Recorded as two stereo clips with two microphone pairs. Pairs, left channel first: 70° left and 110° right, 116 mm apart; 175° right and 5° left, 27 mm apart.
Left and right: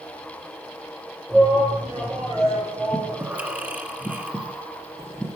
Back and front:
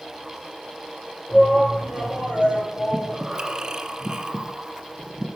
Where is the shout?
170° left, 5.5 m; by 3.2 s 155° left, 5.5 m.